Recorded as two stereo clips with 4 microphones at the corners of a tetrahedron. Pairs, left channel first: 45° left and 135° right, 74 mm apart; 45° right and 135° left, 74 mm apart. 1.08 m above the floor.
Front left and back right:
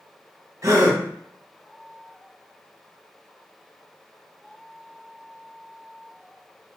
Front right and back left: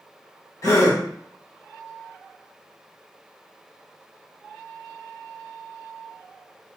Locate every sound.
0.6 s a gasp: 90° right, 0.8 m